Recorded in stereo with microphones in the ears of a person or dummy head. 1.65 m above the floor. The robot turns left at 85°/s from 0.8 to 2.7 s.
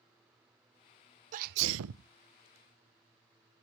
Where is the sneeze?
40° right, 0.6 m; by 2.1 s 110° right, 0.6 m.